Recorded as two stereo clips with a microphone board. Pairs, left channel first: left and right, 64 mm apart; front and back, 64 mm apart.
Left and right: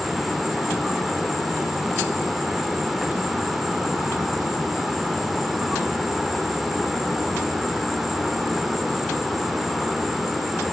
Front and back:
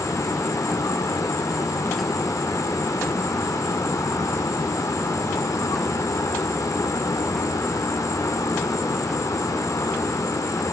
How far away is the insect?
About 1.2 m.